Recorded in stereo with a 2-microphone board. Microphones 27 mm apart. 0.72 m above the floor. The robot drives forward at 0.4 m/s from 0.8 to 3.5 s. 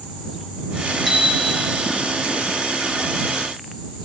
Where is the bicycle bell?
Centre (ahead or behind), 7.5 m.